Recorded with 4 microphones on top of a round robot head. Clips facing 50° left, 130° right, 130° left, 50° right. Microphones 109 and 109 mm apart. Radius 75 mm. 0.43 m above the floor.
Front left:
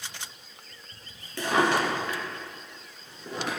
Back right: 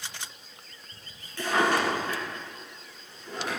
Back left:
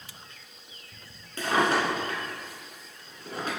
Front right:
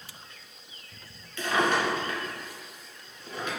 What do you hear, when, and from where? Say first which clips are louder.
1.4 s a drawer: front left 1 dB, back left 1 dB; 75° left, 1.9 m